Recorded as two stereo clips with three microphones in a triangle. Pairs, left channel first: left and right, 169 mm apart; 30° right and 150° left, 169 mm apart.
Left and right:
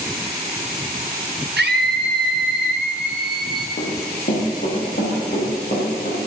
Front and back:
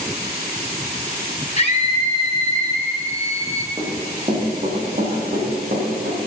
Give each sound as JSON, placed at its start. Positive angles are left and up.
{"t": 1.6, "sound": "a scream", "azimuth_deg": -85, "distance_m": 0.6}
{"t": 3.8, "sound": "running footsteps", "azimuth_deg": 95, "distance_m": 4.0}